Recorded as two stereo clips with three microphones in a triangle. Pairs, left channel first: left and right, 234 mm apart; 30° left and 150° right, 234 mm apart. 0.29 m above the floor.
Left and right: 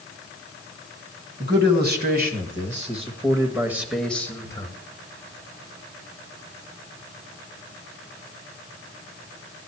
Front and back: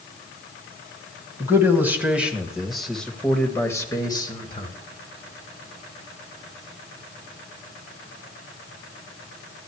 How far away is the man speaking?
About 1.9 m.